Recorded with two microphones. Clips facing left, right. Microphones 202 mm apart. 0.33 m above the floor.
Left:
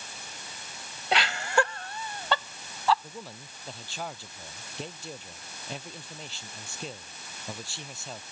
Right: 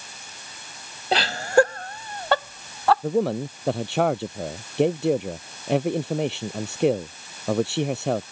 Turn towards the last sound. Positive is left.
turn(degrees=-70)  # may be behind; listen again after turning